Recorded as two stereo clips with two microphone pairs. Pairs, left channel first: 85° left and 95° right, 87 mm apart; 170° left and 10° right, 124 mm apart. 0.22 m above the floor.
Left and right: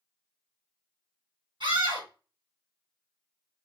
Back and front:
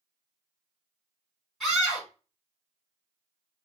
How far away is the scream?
About 3.5 m.